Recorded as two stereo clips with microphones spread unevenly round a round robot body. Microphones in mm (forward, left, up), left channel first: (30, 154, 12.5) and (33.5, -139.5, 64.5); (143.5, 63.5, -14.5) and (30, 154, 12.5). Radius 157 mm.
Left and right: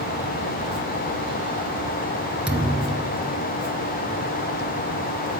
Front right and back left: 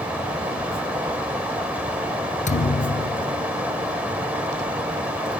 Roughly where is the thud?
Ahead.